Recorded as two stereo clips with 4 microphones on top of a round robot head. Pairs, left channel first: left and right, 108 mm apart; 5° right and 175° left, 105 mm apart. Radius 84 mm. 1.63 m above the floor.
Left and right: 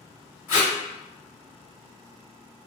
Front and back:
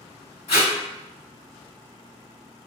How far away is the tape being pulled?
About 1.8 m.